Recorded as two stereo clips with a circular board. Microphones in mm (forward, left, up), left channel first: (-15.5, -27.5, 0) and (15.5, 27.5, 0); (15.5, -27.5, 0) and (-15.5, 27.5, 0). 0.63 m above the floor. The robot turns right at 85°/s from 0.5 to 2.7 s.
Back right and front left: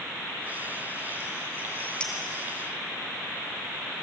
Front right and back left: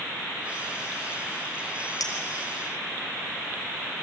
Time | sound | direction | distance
2.0 | a clink | 45° right | 3 m